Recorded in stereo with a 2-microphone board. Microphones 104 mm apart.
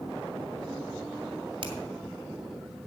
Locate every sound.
1.6 s a finger snap: 55° right (ahead or behind), 2 m